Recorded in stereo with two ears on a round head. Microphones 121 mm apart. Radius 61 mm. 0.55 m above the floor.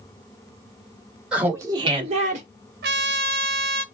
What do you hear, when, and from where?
1.3 s laughter: 5° right (ahead or behind), 1.5 m; by 2.5 s 55° right (ahead or behind), 1.8 m
2.8 s a trumpet: 80° right, 0.7 m